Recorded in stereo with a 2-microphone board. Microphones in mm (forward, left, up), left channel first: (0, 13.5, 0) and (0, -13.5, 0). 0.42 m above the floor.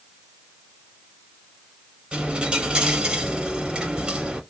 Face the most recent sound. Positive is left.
turn(degrees=-30)  # may be behind; listen again after turning